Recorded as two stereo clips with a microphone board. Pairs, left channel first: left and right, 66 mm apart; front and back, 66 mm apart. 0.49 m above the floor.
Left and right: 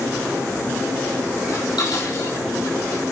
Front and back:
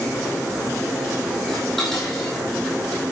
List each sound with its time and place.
1.5 s dishes clattering: 85° left, 5.5 m